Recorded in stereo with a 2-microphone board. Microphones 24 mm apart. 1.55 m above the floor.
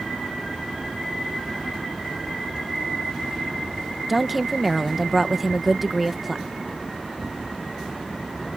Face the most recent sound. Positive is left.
turn(degrees=-5)  # may be behind; listen again after turning